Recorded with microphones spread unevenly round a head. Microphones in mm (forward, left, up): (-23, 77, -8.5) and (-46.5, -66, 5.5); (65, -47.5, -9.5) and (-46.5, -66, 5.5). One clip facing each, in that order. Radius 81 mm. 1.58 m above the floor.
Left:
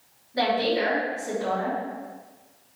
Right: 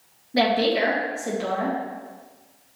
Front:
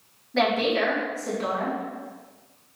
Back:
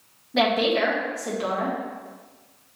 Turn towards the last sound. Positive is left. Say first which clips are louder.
# right 3 dB, back 1 dB
turn(degrees=-100)